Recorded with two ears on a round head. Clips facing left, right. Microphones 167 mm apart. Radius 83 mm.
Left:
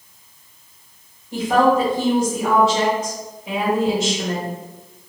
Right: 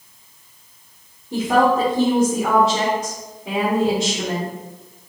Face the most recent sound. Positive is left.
turn(degrees=-50)  # may be behind; listen again after turning